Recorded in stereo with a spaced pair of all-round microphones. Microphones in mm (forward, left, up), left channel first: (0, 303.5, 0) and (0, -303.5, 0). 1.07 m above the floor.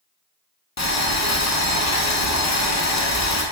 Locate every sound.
0.8 s boiling: 30° left (ahead or behind), 0.6 m